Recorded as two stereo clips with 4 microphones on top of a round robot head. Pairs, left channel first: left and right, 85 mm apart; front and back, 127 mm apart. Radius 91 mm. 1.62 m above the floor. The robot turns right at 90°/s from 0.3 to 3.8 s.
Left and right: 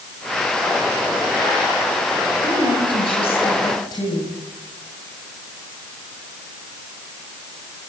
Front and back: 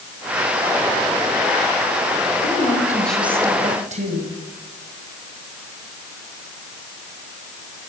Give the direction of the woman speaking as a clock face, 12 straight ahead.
11 o'clock.